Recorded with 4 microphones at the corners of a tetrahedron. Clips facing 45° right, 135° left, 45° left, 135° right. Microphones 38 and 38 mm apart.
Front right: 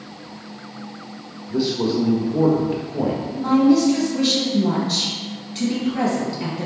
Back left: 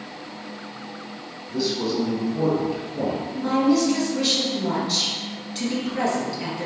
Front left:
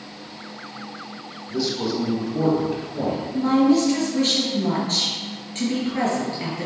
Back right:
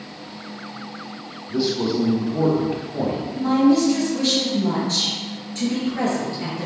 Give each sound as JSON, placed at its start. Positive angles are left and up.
{"t": 1.5, "sound": "a man speaking", "azimuth_deg": -85, "distance_m": 1.0}
{"t": 3.3, "sound": "a woman speaking", "azimuth_deg": 45, "distance_m": 1.9}